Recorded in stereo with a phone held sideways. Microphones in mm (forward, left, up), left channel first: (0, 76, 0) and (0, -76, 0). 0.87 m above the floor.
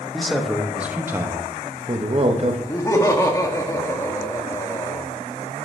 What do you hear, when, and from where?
0.1 s a man speaking: 5° left (ahead or behind), 1.4 m; by 2.6 s 50° right (ahead or behind), 1.1 m
2.7 s laughter: 20° left (ahead or behind), 1.6 m